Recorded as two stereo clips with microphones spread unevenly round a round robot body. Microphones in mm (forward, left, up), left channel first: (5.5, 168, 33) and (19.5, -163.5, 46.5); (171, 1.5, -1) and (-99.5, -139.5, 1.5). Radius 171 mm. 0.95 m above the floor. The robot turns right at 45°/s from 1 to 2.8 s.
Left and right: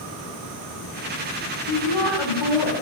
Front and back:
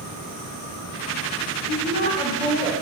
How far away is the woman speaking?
About 3 m.